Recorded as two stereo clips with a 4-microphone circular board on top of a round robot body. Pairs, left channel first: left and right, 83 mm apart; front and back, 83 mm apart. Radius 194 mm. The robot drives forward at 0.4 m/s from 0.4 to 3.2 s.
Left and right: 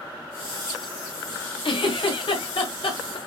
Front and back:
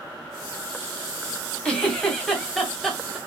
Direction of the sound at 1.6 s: 80° left.